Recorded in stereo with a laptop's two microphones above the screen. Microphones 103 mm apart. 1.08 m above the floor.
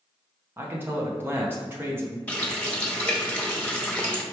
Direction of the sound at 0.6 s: 20° right (ahead or behind).